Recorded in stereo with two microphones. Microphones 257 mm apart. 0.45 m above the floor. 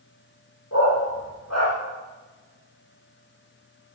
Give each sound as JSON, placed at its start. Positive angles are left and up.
{"t": 0.7, "sound": "a dog barking", "side_deg": 90, "distance_m": 5.0}